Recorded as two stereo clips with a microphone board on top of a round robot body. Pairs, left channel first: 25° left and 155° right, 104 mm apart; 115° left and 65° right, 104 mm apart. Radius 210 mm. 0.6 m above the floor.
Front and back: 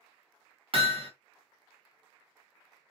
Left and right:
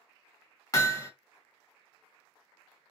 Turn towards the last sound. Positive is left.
turn(degrees=170)